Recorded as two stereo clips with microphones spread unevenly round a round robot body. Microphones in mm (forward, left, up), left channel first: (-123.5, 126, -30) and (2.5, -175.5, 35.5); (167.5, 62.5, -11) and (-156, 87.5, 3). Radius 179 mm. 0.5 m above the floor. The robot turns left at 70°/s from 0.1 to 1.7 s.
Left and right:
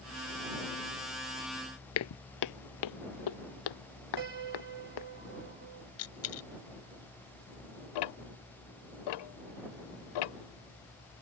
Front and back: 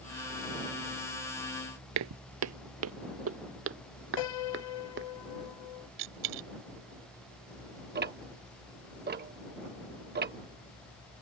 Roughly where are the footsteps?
Behind.